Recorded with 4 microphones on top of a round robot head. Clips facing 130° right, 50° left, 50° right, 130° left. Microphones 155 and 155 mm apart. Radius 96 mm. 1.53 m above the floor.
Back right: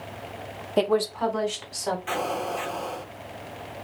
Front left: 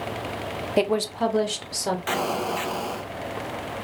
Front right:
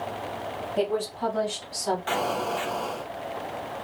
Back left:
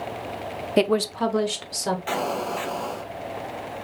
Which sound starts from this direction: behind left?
A woman speaking, at 0.8 s.